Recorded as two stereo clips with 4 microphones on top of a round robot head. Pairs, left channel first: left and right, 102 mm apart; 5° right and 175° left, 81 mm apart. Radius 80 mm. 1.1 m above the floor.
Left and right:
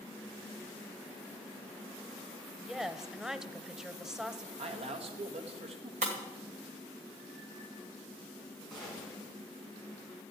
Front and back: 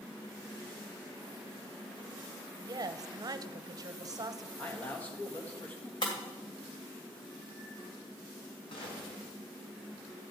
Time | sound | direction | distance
2.6 | a woman speaking | 175° right | 0.9 m
4.6 | a man speaking | 75° right | 1.9 m
6.0 | breaking glass | 55° right | 2.0 m
8.7 | a gunshot | 5° right | 5 m